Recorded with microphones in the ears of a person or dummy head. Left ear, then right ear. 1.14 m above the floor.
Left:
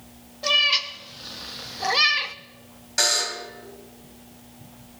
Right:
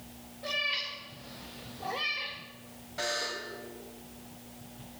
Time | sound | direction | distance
0.4 | a cat meowing | 45° left (ahead or behind) | 1.7 m
3.0 | a buzzer | 65° left (ahead or behind) | 2.5 m